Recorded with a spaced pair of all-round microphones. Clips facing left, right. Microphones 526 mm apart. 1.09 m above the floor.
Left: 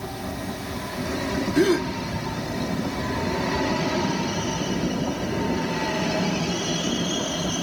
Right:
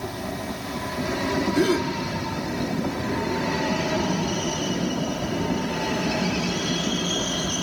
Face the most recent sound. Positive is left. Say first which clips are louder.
# left 3 dB
turn(degrees=0)  # may be behind; listen again after turning